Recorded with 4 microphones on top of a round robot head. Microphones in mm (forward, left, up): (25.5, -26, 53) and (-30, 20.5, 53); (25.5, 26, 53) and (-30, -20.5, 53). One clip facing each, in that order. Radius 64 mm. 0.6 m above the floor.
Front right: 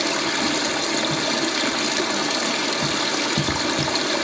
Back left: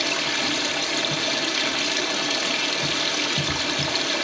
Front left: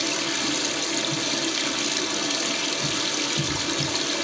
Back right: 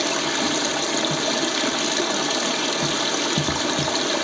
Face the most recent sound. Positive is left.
turn(degrees=-100)